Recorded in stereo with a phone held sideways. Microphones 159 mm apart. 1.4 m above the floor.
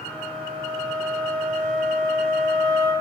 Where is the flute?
10° left (ahead or behind), 2 m.